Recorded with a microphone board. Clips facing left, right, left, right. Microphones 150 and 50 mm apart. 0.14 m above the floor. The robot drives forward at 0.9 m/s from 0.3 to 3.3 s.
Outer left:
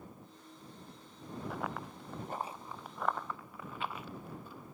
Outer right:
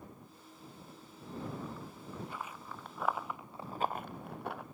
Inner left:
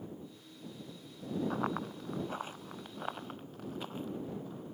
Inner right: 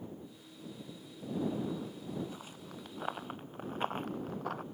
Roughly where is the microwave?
No microwave in this recording.